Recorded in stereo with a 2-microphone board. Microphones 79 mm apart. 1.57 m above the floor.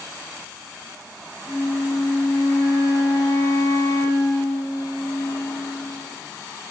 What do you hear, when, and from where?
1.5 s a flute: 55° left (ahead or behind), 1.8 m